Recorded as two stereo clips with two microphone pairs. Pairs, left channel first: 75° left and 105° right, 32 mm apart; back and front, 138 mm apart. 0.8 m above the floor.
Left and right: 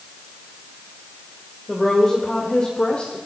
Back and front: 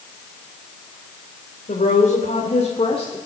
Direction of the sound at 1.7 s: 155° left.